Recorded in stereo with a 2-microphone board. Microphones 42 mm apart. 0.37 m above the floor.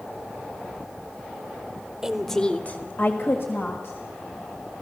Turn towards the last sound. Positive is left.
turn(degrees=70)  # may be behind; listen again after turning